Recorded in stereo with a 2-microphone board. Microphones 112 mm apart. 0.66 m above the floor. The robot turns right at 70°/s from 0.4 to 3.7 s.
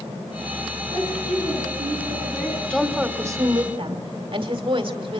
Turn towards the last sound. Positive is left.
turn(degrees=-120)